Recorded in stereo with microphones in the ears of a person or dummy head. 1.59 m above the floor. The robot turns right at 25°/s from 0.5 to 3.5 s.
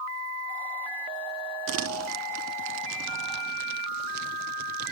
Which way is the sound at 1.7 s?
70° right (ahead or behind).